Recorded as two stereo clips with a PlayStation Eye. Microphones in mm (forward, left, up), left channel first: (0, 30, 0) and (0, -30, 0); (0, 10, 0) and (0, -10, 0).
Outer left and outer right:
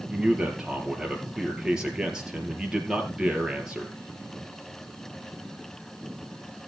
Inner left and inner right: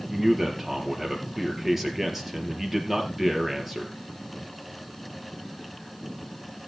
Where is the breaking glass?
No breaking glass in this recording.